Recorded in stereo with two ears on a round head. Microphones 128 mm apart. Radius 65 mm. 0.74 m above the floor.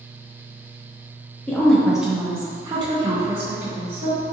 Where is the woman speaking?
10° left (ahead or behind), 0.8 m; by 4.2 s 45° right (ahead or behind), 1.2 m.